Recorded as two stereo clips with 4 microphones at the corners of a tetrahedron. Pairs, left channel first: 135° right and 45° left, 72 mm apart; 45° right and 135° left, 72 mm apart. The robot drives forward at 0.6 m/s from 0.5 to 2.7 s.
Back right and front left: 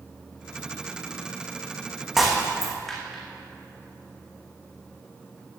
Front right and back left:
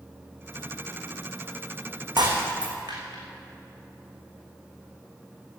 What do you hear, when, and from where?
2.2 s breaking glass: 130° left, 2.5 m; by 3.2 s 135° left, 2.5 m